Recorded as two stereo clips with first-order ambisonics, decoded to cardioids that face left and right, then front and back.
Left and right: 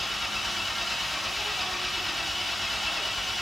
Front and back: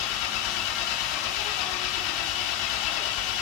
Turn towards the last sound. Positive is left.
turn(degrees=0)